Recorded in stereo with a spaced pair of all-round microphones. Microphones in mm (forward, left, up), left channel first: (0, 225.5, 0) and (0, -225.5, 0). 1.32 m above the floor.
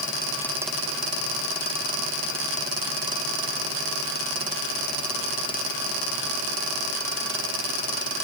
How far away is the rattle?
I don't hear a rattle.